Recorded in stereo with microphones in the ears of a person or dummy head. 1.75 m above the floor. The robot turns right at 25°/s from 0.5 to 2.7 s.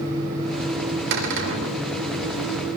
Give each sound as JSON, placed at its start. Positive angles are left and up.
{"t": 1.1, "sound": "a cupboard door", "side_deg": -60, "distance_m": 3.0}